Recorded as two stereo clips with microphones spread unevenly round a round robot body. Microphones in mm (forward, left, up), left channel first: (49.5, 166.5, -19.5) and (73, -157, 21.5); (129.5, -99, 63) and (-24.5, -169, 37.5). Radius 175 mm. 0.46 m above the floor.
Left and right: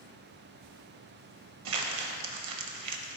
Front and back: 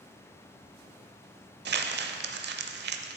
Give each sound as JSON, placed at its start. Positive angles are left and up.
{"t": 1.6, "sound": "crumpling", "azimuth_deg": -130, "distance_m": 0.6}